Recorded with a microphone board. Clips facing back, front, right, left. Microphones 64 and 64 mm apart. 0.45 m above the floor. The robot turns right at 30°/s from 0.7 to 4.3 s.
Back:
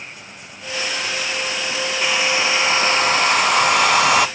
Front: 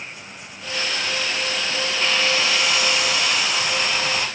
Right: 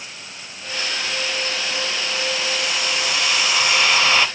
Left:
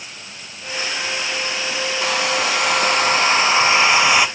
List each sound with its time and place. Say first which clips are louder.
2.0 s a hair dryer: back 2 dB, left 5 dB; 100° left, 0.6 m; by 4.3 s 165° left, 0.6 m